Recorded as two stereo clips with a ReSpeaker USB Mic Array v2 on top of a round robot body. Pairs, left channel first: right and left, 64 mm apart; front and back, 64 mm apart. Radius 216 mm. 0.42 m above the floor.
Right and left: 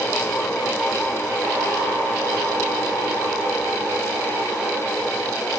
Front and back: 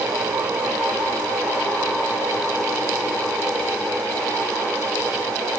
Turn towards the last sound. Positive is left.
No sound to turn to.